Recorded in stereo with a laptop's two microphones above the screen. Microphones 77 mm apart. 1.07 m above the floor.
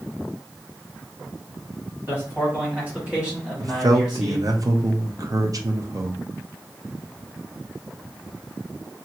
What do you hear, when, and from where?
2.1 s a man speaking: 30° right (ahead or behind), 2 m; by 4.5 s 5° left (ahead or behind), 1.4 m
3.6 s a man speaking: 50° right (ahead or behind), 0.5 m